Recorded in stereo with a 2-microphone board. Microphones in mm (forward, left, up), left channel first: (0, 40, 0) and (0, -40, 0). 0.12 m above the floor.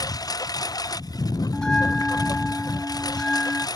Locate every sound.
0.0 s a lawn mower: 50° left (ahead or behind)
1.5 s a bell: 10° left (ahead or behind)